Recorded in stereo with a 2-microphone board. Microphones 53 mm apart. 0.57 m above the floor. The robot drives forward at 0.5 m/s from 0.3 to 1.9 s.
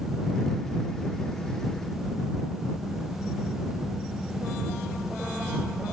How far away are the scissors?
I don't hear scissors.